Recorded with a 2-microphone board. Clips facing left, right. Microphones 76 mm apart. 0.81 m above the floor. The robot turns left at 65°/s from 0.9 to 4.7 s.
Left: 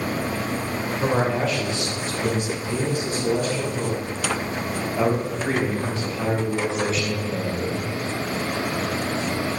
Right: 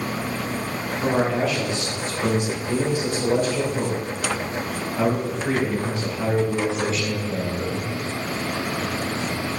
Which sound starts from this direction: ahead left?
A man speaking, at 1.0 s.